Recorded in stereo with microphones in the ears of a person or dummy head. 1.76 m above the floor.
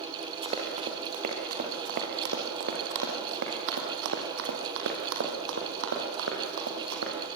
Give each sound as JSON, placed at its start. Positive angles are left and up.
{"t": 0.4, "sound": "running footsteps", "side_deg": -20, "distance_m": 3.0}